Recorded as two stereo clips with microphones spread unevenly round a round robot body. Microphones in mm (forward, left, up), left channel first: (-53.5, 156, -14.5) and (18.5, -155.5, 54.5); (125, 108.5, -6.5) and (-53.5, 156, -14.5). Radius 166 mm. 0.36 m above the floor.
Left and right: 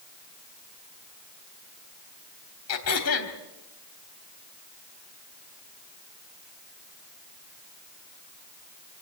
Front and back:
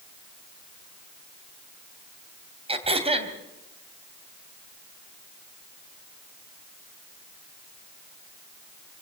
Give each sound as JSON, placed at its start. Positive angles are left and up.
{"t": 2.7, "sound": "throat clearing", "azimuth_deg": 115, "distance_m": 2.5}